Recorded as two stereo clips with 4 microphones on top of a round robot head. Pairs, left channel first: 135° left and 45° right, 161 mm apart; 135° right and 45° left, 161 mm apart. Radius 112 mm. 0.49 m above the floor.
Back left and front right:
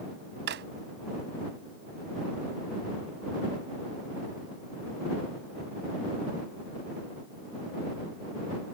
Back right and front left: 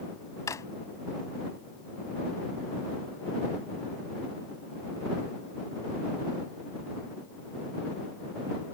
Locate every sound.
0.5 s a drawer: 65° right